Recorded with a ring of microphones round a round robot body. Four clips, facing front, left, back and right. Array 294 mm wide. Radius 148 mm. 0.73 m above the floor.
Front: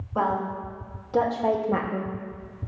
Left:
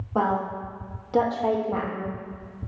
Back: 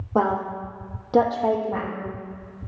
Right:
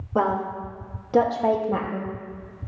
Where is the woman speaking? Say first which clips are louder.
Right 1 dB, back 3 dB; 160° right, 2 m; by 2.1 s 5° right, 1.1 m.